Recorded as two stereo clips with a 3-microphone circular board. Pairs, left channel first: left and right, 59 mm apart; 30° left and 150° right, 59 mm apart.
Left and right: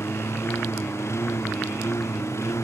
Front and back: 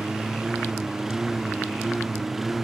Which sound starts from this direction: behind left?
A lawn mower, at 0.0 s.